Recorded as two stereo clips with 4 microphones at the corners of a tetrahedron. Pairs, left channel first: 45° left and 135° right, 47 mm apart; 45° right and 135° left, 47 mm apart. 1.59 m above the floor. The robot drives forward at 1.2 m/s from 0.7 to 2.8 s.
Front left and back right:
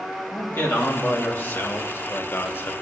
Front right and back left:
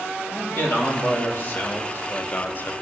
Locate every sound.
0.3 s a man speaking: straight ahead, 3.5 m; by 2.7 s 5° left, 0.9 m